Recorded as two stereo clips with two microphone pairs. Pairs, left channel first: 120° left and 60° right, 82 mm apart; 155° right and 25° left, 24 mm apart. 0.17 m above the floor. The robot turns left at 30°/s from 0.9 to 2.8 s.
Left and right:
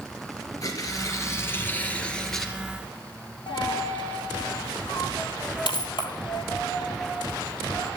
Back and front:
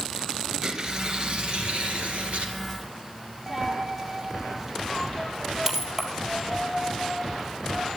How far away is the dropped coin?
About 1.7 m.